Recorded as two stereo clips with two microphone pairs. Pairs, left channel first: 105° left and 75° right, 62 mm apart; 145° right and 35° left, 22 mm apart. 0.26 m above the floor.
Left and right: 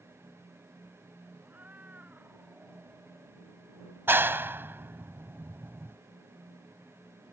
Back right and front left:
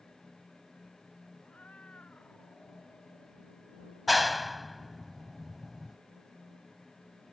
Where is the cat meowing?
140° right; by 3.4 s 145° right.